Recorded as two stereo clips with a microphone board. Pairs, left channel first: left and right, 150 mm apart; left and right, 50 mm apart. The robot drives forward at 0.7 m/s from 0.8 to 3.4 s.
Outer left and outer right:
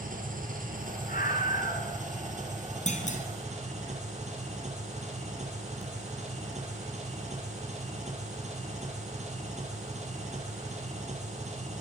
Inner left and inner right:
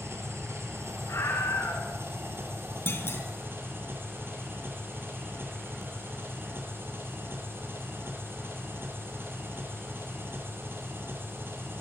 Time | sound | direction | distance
0.0 | an engine running | 65° right (ahead or behind) | 4.5 m
1.1 | a scream | 75° left (ahead or behind) | 5.5 m
2.9 | a clunk | 55° left (ahead or behind) | 3.5 m